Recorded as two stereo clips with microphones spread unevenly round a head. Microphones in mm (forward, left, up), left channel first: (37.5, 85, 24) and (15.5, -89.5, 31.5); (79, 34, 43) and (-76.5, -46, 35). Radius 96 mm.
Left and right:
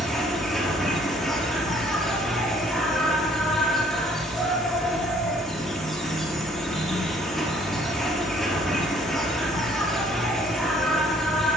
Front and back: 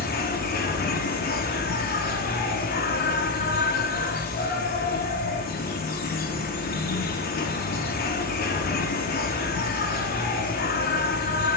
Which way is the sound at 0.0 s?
5° right.